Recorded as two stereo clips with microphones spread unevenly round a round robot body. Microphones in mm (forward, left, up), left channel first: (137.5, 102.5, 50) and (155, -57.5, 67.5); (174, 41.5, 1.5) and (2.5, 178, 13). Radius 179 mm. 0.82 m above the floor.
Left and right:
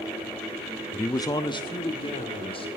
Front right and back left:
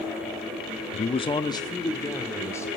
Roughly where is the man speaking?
Ahead.